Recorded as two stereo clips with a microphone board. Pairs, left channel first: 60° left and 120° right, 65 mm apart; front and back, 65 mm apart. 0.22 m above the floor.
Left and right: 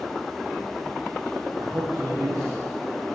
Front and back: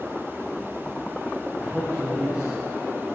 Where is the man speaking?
105° right, 8 m.